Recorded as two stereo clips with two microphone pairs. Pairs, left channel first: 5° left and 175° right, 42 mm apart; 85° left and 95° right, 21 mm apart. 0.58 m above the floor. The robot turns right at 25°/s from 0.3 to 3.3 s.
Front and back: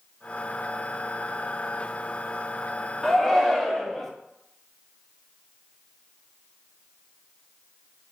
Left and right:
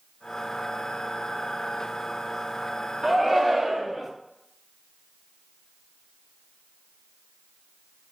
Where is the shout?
70° right, 0.7 m; by 4.1 s 60° right, 0.7 m.